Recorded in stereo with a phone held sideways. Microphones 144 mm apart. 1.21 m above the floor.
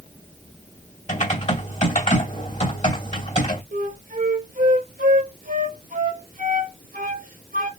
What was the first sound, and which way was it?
Typing on a keyboard, 55° left (ahead or behind).